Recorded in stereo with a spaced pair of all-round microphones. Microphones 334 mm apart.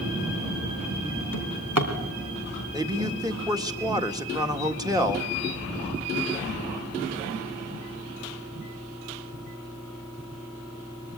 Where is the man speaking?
10° right (ahead or behind), 1.7 m.